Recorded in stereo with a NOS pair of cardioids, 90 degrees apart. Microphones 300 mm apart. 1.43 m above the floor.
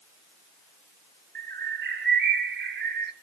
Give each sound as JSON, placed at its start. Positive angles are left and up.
{"t": 1.4, "sound": "a bird", "azimuth_deg": -35, "distance_m": 1.7}